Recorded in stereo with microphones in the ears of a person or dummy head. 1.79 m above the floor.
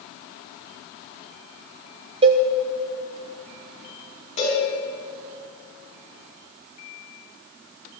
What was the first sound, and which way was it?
A cowbell, 30° right (ahead or behind).